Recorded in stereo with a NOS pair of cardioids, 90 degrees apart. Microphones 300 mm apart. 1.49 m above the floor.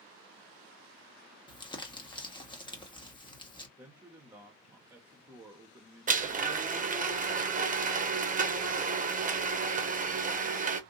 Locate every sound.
1.5 s crumpling: 15° left, 1.2 m
3.8 s a man speaking: 10° right, 1.1 m
6.1 s a blender: 25° right, 0.9 m